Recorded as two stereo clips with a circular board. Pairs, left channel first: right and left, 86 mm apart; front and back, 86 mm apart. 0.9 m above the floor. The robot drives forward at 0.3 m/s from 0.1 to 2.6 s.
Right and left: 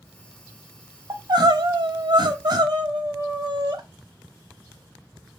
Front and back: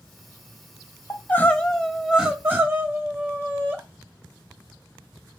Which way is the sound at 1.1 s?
60° left.